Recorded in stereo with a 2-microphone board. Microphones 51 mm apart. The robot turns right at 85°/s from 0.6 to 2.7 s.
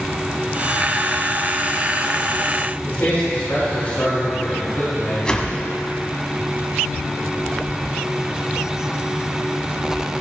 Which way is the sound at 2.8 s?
50° left (ahead or behind).